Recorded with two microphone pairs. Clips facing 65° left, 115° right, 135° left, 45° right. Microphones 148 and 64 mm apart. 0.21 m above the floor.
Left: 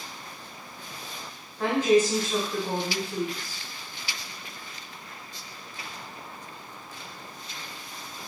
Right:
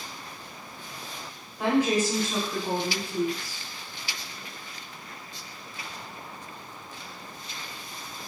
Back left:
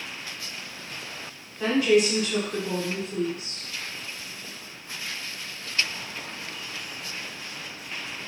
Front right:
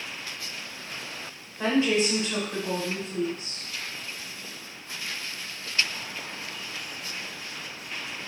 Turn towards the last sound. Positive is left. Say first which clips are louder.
# left 2 dB, back left 3 dB
turn(degrees=-50)